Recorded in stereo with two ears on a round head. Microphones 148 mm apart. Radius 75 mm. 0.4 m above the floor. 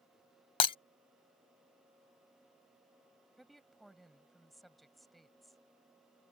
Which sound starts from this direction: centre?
A woman speaking, at 3.4 s.